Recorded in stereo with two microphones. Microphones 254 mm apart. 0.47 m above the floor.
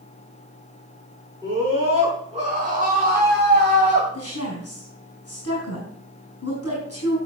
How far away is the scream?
About 5.5 m.